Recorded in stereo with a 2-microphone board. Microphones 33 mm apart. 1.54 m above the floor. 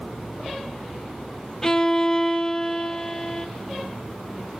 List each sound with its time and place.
1.6 s a violin: 20° left (ahead or behind), 0.5 m